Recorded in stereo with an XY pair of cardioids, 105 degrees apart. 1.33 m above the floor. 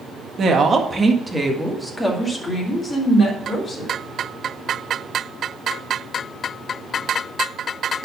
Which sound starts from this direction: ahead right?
A woman speaking, at 0.4 s.